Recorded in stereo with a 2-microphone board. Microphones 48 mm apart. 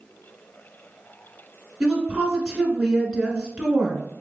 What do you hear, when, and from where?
1.8 s a woman speaking: 10° right (ahead or behind), 1.2 m